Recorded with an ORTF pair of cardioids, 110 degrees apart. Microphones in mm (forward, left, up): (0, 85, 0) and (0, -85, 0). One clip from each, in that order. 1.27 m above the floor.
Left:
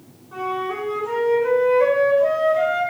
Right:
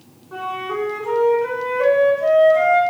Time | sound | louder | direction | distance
0.3 | a flute | even | 20° right | 1.6 m